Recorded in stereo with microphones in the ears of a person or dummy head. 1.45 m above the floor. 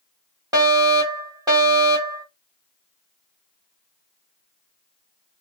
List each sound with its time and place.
0.5 s a fire alarm: 20° right (ahead or behind), 1.0 m